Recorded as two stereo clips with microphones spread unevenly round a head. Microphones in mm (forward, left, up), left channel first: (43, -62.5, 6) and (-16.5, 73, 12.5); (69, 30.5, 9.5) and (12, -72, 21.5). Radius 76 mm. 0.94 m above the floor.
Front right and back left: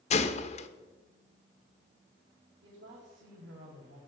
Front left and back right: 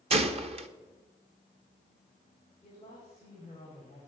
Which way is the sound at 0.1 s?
95° right.